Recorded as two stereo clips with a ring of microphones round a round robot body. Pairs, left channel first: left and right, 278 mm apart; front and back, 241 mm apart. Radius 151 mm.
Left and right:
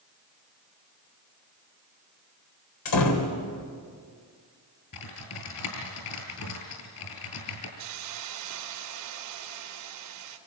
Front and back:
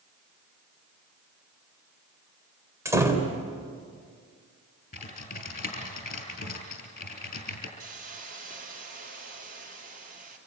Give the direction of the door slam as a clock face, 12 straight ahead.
9 o'clock.